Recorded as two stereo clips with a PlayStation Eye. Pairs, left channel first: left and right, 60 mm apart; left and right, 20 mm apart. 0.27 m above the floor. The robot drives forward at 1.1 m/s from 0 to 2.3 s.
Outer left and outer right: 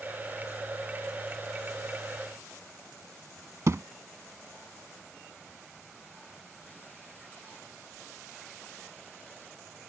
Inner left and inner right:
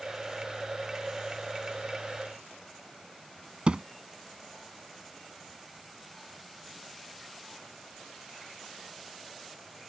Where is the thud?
55° right (ahead or behind).